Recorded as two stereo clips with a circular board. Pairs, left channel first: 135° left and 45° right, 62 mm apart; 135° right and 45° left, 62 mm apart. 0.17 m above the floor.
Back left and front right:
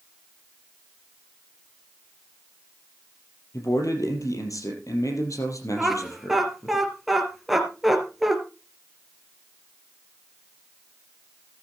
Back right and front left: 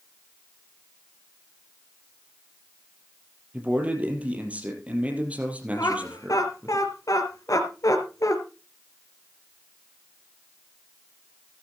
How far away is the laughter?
About 2.5 m.